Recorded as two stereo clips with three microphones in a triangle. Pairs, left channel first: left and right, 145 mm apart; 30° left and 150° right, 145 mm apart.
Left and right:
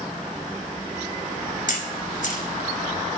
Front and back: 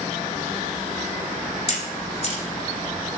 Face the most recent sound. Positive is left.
turn(degrees=70)